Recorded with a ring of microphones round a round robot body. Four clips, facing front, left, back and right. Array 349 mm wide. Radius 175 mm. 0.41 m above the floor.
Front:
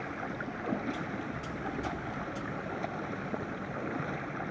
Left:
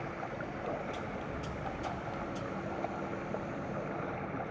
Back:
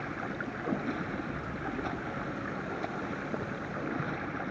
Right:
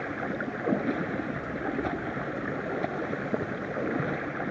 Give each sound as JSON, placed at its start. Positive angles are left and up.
{"t": 0.0, "sound": "running water", "azimuth_deg": -95}